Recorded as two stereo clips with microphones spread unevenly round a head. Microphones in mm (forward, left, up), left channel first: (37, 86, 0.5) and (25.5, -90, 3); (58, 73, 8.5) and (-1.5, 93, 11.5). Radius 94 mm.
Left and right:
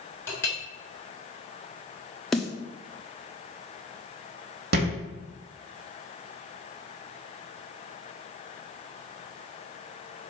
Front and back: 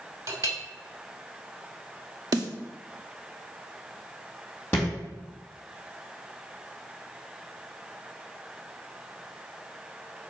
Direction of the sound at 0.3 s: 165° left.